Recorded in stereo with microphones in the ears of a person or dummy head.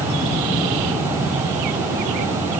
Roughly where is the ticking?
No ticking in this recording.